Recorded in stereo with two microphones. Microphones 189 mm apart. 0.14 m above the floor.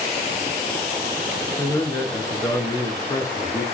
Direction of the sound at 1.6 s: 15° left (ahead or behind).